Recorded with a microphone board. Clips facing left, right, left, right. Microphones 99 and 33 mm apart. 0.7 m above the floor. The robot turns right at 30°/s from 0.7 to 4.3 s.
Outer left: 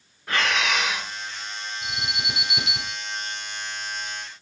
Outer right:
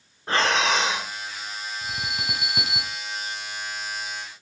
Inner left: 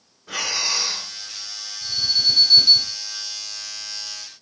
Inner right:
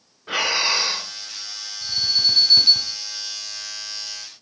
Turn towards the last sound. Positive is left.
turn(degrees=-5)